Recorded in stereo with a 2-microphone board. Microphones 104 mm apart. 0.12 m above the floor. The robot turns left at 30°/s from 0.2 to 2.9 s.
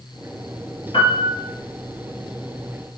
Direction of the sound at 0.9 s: 55° left (ahead or behind).